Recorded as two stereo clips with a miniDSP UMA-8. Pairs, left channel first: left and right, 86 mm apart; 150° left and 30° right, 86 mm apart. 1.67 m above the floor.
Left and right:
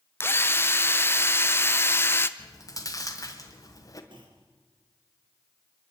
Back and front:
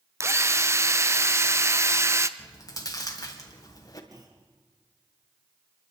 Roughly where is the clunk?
Right.